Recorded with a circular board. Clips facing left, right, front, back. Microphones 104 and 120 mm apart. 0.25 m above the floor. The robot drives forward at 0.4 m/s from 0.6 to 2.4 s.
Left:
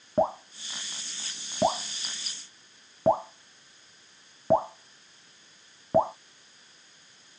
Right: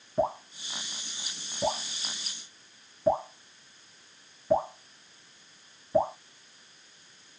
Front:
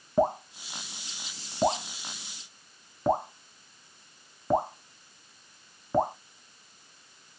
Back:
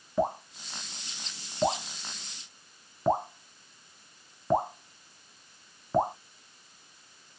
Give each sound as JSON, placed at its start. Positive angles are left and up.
{"t": 0.2, "sound": "dripping", "azimuth_deg": 50, "distance_m": 1.2}